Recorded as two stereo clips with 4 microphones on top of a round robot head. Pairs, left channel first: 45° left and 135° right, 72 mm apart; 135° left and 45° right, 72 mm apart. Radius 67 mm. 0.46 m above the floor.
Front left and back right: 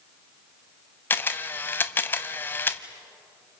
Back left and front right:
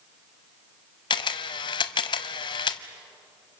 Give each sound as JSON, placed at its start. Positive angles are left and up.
{"t": 1.1, "sound": "a camera shutter", "azimuth_deg": 110, "distance_m": 0.8}